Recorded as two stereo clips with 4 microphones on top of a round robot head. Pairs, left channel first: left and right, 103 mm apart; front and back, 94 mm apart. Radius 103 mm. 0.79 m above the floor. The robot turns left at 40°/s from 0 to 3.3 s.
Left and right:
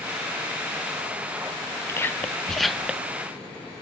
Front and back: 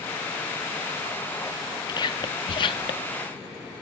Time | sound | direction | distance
1.9 | whispering | 30° left | 0.7 m